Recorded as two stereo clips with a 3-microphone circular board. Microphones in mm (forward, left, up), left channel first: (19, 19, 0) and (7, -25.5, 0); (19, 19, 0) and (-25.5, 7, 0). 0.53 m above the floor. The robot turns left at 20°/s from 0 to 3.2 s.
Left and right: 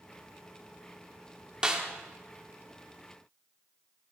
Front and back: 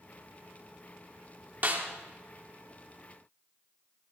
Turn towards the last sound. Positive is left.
turn(degrees=170)